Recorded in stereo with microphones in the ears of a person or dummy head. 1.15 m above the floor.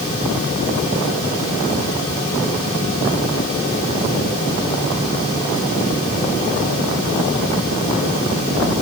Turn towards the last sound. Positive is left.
No sound to turn to.